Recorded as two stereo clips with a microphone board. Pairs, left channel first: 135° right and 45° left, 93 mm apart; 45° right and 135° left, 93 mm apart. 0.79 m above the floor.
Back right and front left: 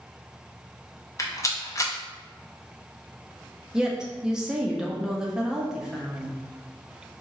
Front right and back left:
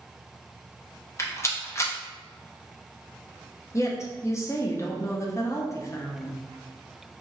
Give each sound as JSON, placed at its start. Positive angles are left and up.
{"t": 1.2, "sound": "a rattle", "azimuth_deg": -95, "distance_m": 0.6}
{"t": 3.7, "sound": "a woman speaking", "azimuth_deg": -30, "distance_m": 0.5}